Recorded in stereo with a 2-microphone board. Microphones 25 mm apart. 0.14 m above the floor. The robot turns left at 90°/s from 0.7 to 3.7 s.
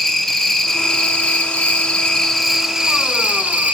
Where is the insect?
160° left, 0.8 m; by 3.8 s 110° right, 0.8 m.